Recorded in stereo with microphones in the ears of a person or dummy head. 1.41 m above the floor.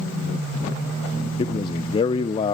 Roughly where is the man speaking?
Left.